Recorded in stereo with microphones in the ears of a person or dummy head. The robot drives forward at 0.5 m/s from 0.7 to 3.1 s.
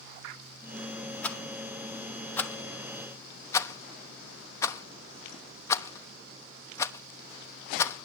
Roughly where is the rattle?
Centre.